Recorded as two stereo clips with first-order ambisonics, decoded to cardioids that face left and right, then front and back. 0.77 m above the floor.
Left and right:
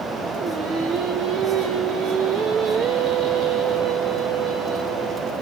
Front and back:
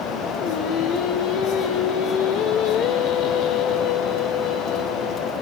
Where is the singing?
40° right, 2.5 m.